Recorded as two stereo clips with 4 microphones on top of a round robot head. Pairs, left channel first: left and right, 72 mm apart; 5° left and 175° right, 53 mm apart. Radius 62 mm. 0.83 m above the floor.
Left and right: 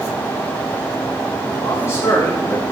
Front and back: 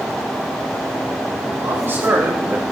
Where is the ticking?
I don't hear ticking.